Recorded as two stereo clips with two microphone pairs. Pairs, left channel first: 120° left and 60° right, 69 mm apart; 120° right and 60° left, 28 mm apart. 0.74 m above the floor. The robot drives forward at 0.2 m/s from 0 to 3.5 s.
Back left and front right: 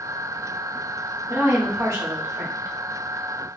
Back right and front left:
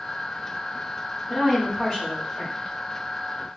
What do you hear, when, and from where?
1.3 s a woman speaking: 40° right, 1.8 m; by 2.7 s 50° right, 1.6 m